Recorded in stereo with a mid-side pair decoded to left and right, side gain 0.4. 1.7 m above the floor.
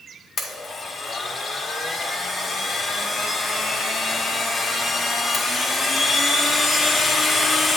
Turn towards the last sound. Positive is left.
turn(degrees=50)